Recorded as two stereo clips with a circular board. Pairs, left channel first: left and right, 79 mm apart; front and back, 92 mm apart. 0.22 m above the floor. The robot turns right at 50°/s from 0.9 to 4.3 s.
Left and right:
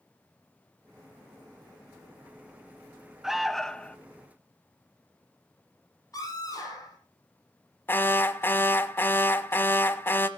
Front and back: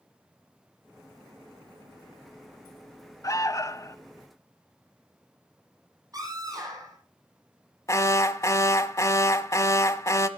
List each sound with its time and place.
3.2 s an alarm: 10° right, 0.7 m; by 4.0 s 25° left, 0.7 m
6.1 s a scream: 135° left, 6 m
7.9 s an alarm: 40° left, 0.9 m